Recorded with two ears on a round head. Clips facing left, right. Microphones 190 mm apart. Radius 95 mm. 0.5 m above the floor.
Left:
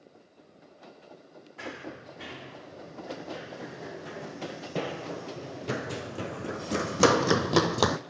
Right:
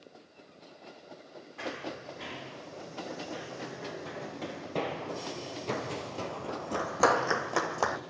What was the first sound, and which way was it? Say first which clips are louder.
Running footsteps: right 2 dB; centre (ahead or behind).